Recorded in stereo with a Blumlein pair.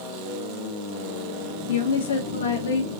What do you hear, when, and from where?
1.7 s a woman speaking: 65° left, 1.8 m